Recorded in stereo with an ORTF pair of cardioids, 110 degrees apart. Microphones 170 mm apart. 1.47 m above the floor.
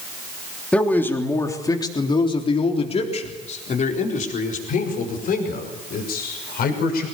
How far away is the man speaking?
About 3 m.